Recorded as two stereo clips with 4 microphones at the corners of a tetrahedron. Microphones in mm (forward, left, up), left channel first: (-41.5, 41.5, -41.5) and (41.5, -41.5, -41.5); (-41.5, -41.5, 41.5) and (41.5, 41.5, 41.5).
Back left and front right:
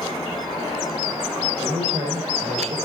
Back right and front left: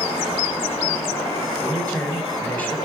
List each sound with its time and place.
1.6 s a man speaking: 60° right, 3.5 m